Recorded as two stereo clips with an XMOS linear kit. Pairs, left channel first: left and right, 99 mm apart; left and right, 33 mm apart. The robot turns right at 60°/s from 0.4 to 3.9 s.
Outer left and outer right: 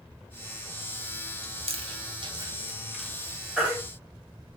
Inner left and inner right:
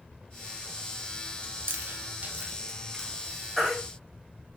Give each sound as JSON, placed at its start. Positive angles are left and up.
{"t": 1.4, "sound": "chewing", "side_deg": -80, "distance_m": 0.5}
{"t": 3.6, "sound": "a baby crying", "side_deg": -10, "distance_m": 1.8}